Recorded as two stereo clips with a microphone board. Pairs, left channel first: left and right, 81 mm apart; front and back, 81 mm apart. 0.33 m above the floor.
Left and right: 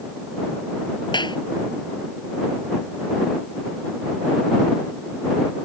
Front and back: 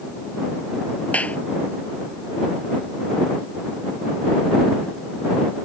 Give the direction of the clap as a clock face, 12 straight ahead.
10 o'clock.